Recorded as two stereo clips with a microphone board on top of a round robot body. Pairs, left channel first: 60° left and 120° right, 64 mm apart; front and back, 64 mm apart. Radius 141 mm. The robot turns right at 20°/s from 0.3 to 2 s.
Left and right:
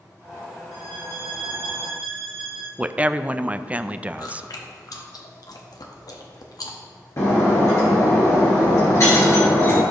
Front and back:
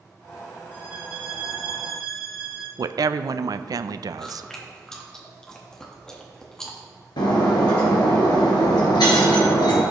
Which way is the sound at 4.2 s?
80° left.